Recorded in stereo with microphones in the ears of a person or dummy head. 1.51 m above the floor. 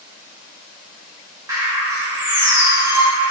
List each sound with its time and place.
1.5 s a bird: 10° right (ahead or behind), 0.5 m